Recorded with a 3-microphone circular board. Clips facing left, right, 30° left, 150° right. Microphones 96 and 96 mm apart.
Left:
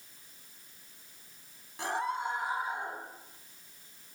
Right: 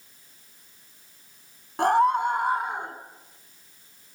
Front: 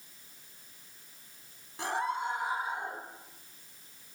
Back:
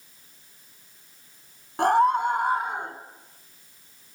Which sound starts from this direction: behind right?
A scream, at 1.8 s.